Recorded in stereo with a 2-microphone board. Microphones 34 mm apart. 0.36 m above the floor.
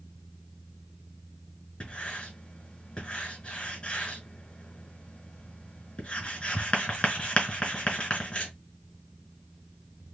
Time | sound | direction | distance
1.8 | writing | 35° left (ahead or behind) | 2.0 m